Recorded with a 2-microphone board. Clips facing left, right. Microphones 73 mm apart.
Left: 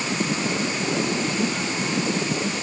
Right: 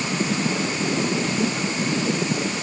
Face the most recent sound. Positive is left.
No sound to turn to.